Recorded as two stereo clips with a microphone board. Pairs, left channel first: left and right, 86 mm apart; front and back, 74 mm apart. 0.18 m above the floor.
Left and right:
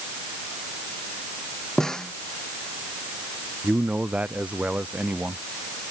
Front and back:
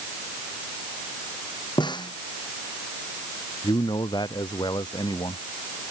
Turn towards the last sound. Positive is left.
turn(degrees=-15)